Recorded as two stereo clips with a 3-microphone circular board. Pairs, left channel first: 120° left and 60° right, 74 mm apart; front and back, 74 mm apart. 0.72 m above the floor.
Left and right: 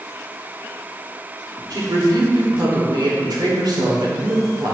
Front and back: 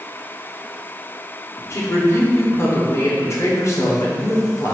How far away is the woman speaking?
About 1.8 m.